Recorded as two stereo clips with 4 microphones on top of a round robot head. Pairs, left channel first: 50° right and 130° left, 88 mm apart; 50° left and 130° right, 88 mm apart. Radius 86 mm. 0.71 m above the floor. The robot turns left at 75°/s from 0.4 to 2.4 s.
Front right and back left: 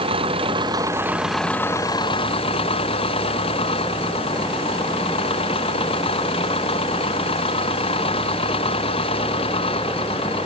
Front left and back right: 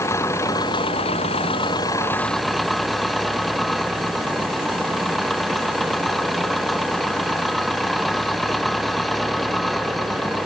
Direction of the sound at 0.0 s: 110° left.